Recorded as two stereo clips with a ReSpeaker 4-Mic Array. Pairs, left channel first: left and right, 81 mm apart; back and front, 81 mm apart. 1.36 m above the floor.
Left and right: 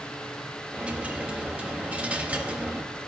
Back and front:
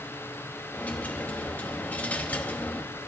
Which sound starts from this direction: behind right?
A dropped coin, at 0.7 s.